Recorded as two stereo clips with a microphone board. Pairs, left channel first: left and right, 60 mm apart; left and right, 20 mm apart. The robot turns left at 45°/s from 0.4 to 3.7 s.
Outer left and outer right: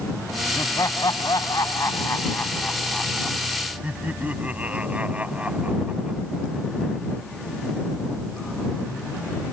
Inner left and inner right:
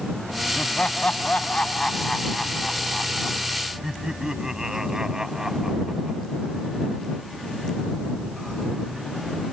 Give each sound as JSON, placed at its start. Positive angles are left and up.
{"t": 0.6, "sound": "laughter", "azimuth_deg": 120}